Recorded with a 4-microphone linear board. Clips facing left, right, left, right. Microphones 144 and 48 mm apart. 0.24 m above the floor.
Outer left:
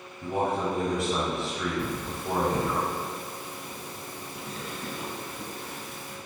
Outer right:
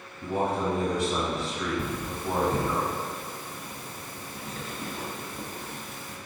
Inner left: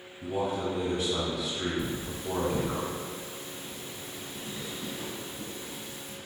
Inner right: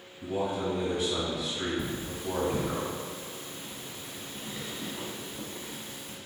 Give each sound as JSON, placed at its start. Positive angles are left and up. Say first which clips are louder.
{"t": 0.2, "sound": "a man speaking", "louder": "even, even", "side_deg": 0, "distance_m": 1.6}
{"t": 1.8, "sound": "cutlery clinking", "louder": "even, inner left 1 dB", "side_deg": -45, "distance_m": 0.8}